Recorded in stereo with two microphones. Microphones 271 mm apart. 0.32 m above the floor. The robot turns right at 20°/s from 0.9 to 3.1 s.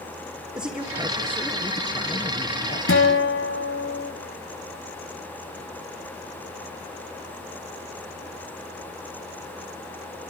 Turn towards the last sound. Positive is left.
turn(degrees=50)  # may be behind; listen again after turning